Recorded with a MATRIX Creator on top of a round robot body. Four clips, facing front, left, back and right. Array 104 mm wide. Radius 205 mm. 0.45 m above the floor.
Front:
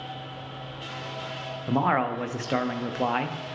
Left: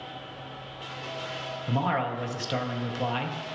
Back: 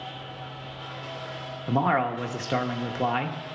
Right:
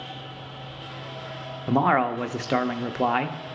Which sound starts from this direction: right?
A man speaking, at 1.7 s.